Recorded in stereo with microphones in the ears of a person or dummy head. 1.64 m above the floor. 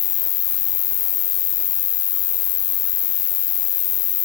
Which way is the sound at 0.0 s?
35° left (ahead or behind).